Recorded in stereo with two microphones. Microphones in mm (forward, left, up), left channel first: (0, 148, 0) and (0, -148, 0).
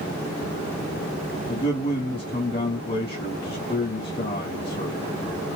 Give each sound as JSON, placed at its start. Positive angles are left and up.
{"t": 1.5, "sound": "a man speaking", "side_deg": 35, "distance_m": 1.9}